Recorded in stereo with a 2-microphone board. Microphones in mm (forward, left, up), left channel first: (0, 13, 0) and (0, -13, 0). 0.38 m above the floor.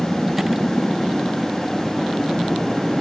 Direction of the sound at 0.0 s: 10° right (ahead or behind).